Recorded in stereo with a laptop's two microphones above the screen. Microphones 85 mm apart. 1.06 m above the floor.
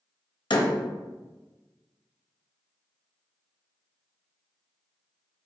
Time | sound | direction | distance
0.5 | a door slam | 70° left (ahead or behind) | 0.6 m